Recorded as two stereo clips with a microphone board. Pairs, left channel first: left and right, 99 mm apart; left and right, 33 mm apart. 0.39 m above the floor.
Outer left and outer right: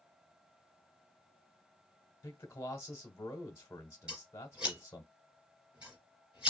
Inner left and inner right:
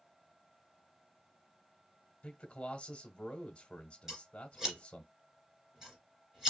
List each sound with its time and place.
2.2 s a man speaking: 25° left (ahead or behind), 1.1 m
4.1 s scissors: 10° right (ahead or behind), 2.5 m